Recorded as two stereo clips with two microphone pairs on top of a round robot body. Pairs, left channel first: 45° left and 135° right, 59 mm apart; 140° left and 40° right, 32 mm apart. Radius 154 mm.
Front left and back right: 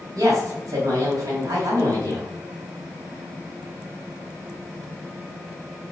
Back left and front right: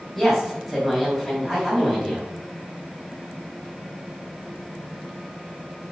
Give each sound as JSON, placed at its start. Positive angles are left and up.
{"t": 0.1, "sound": "a woman speaking", "azimuth_deg": -125, "distance_m": 2.5}